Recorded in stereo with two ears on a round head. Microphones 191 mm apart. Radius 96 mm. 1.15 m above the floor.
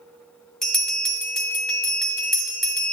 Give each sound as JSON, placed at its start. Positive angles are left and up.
{"t": 0.6, "sound": "a bell", "side_deg": 0, "distance_m": 2.5}